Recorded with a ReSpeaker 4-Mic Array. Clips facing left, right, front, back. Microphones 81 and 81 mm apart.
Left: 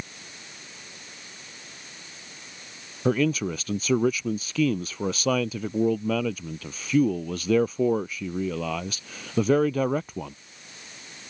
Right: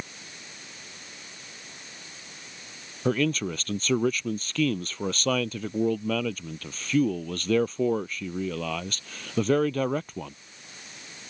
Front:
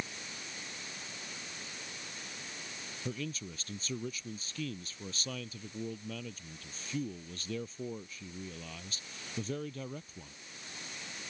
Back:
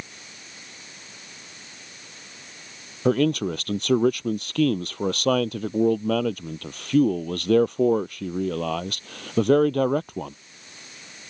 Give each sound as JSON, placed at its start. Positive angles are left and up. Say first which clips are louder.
{"t": 3.0, "sound": "a man speaking", "louder": "left 2 dB, back 20 dB", "azimuth_deg": 175}